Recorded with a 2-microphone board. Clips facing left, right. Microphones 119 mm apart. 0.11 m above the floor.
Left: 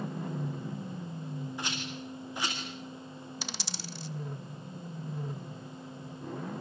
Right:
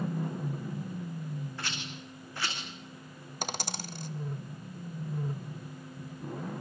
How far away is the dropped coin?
About 1.1 m.